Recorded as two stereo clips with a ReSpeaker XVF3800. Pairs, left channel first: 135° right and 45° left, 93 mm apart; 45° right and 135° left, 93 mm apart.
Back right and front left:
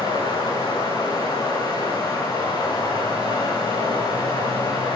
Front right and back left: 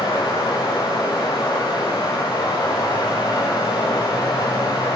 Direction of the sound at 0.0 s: 90° right.